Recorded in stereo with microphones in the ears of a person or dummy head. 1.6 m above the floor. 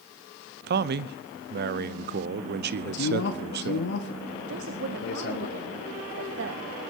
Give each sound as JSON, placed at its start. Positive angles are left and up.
{"t": 0.7, "sound": "a man speaking", "side_deg": -50, "distance_m": 0.7}
{"t": 2.8, "sound": "a man speaking", "side_deg": 65, "distance_m": 1.3}
{"t": 4.5, "sound": "a woman speaking", "side_deg": -65, "distance_m": 1.2}